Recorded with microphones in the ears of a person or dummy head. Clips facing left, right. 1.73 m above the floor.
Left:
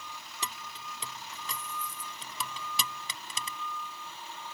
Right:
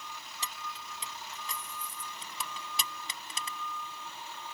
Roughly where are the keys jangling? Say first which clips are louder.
Left 2 dB; left.